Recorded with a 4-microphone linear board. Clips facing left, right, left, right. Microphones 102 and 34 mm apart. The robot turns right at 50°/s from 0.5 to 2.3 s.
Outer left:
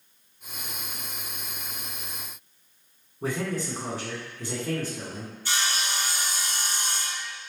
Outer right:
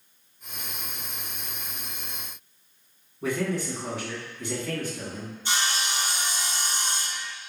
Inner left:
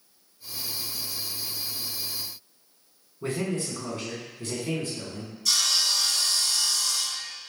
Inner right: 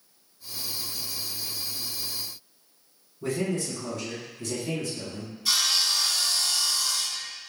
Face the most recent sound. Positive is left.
turn(degrees=-20)  # may be behind; listen again after turning